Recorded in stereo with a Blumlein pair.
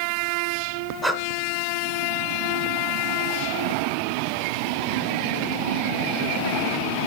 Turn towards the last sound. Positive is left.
turn(degrees=-5)